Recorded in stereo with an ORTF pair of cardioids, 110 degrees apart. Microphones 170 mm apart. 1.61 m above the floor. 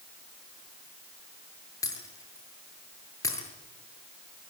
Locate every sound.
1.8 s breaking glass: 20° left, 7.5 m